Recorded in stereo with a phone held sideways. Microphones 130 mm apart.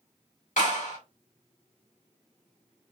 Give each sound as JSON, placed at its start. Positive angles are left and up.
{"t": 0.6, "sound": "a clap", "side_deg": 80, "distance_m": 2.5}